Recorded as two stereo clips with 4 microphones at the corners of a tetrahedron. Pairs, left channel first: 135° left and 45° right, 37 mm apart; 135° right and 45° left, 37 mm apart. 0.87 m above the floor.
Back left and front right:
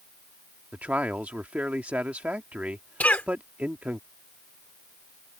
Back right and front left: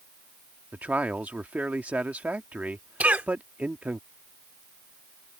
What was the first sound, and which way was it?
A man speaking, 5° left.